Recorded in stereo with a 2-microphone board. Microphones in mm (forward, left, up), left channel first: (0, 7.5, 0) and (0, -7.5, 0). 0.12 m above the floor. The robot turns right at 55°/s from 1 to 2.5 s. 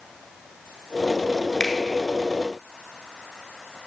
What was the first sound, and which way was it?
A finger snap, 40° left (ahead or behind).